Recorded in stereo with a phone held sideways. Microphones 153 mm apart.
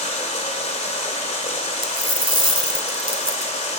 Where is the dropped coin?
35° right (ahead or behind), 1.6 m.